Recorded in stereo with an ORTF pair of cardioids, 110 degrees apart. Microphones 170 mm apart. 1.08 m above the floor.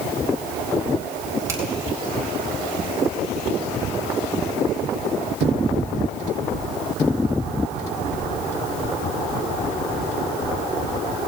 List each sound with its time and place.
1.5 s a finger snap: 20° right, 4.5 m